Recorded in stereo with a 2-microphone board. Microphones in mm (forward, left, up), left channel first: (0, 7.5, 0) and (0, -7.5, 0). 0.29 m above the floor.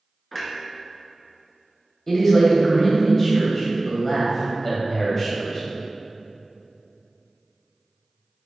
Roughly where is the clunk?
Centre.